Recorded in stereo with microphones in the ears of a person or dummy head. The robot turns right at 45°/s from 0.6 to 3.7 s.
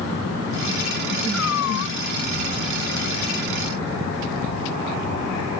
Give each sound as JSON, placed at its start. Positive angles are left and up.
{"t": 1.3, "sound": "a cat meowing", "side_deg": 80}